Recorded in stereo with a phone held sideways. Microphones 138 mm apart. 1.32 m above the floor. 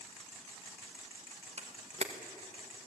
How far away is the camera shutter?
About 1.9 m.